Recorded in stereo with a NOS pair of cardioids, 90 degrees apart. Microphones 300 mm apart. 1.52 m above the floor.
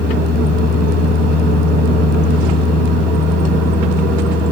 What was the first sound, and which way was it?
A fan, 60° left.